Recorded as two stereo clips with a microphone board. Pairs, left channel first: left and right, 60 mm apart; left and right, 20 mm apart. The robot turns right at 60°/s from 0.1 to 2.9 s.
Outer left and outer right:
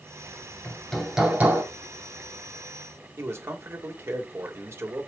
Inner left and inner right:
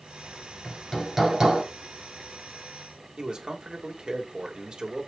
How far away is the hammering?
About 2 m.